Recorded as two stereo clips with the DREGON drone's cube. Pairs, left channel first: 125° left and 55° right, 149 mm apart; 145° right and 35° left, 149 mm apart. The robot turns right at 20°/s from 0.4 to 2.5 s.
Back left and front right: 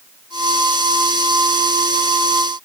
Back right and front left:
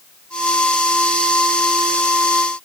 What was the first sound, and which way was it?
Only background noise.